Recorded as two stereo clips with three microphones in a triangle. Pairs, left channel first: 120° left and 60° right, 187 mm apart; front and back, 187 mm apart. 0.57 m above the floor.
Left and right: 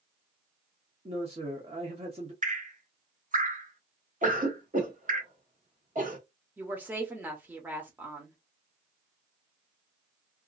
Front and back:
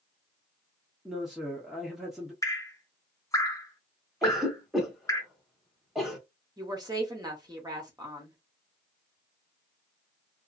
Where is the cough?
90° right, 1.5 m.